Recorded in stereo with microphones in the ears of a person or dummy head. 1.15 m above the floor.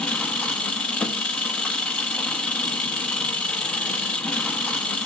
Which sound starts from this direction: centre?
An engine running, at 0.0 s.